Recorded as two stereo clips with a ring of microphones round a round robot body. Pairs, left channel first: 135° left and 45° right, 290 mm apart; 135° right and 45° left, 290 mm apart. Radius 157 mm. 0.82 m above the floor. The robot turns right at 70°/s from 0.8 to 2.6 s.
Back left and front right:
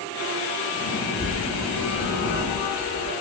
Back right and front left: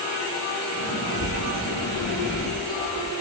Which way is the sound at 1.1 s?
15° left.